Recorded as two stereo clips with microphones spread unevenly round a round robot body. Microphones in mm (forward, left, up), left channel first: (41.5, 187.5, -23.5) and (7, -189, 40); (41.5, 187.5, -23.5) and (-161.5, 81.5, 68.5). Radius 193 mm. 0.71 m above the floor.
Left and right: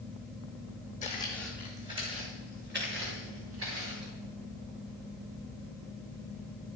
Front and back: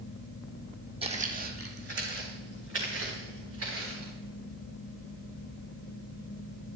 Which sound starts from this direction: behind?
Footsteps, at 1.0 s.